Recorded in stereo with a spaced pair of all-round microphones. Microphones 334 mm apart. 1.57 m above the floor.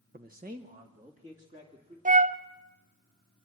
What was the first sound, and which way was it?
A man speaking, 25° right (ahead or behind).